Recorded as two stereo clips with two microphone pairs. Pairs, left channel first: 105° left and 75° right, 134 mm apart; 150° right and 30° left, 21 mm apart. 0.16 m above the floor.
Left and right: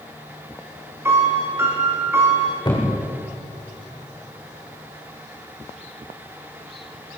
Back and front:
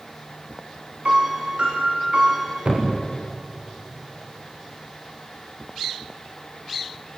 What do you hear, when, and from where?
1.1 s a piano: straight ahead, 7.5 m
2.6 s a thud: 50° left, 5.5 m